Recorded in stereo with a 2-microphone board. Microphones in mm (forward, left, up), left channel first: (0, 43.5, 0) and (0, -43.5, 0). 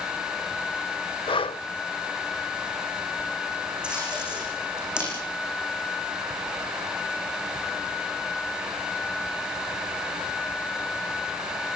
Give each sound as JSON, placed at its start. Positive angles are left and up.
{"t": 1.3, "sound": "breathing", "side_deg": 85, "distance_m": 0.5}
{"t": 3.8, "sound": "tape being pulled", "side_deg": -10, "distance_m": 9.0}